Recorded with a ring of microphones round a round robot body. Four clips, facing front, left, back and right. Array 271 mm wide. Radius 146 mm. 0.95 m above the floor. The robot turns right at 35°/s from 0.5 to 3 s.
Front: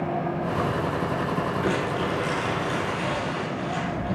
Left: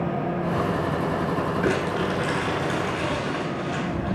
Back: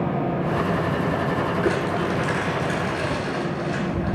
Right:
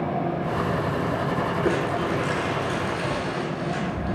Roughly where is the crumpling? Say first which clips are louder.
Even, back 3 dB; behind left.